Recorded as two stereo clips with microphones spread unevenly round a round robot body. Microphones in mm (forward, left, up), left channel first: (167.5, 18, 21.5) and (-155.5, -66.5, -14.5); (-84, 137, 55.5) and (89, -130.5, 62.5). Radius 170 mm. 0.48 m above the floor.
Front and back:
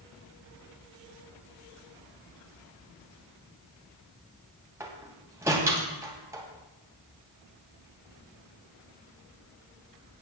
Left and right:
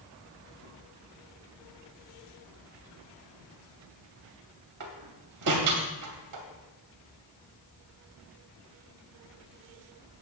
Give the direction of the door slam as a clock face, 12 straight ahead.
3 o'clock.